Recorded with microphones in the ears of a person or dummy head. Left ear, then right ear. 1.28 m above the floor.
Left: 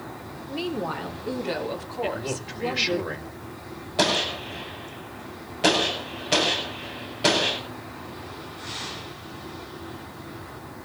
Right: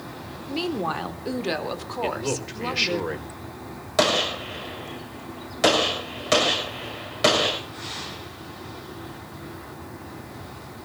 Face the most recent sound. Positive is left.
turn(degrees=-55)  # may be behind; listen again after turning